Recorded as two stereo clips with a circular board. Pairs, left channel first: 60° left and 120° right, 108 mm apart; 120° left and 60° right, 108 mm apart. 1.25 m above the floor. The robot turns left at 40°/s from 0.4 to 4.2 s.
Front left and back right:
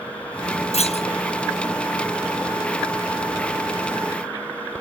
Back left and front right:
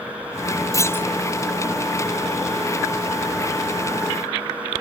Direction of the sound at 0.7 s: 60° left.